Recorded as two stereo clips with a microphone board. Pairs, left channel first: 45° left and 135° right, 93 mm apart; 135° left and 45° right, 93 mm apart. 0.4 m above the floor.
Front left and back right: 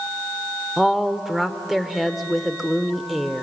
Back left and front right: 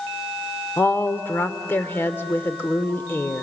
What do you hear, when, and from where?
0.8 s a woman speaking: 140° left, 0.8 m